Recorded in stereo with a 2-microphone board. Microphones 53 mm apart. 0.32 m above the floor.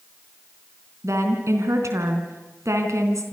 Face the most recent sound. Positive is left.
turn(degrees=-65)  # may be behind; listen again after turning